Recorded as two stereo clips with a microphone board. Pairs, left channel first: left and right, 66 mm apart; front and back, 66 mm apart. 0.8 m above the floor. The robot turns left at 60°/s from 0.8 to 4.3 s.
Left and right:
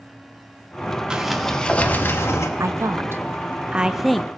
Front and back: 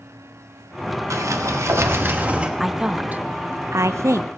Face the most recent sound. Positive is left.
turn(degrees=165)